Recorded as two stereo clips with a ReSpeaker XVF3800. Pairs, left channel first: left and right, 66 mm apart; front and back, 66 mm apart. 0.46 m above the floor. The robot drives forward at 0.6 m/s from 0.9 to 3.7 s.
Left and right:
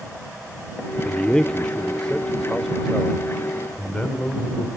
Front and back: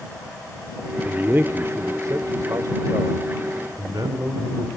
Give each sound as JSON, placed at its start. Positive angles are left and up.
{"t": 1.1, "sound": "a man speaking", "azimuth_deg": 145, "distance_m": 0.8}